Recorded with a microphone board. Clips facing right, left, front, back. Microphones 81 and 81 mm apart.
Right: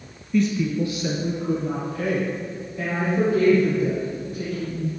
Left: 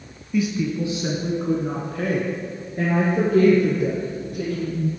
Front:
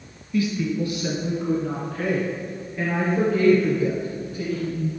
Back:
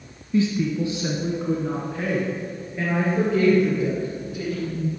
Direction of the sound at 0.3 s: 175° left.